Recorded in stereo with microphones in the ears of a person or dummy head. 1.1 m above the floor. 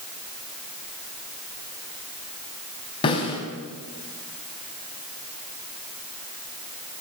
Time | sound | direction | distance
3.0 | a snare drum | 25° left (ahead or behind) | 4 m